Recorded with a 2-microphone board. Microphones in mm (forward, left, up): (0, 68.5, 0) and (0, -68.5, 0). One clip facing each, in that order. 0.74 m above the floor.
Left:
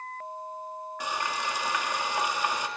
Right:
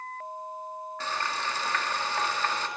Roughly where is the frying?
Centre.